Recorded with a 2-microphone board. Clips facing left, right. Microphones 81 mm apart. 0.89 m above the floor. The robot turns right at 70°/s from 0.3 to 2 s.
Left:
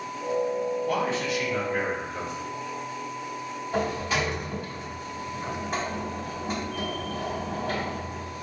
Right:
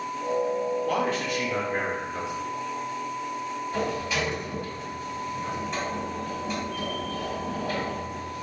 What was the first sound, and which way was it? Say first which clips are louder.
A man speaking: even; 100° right.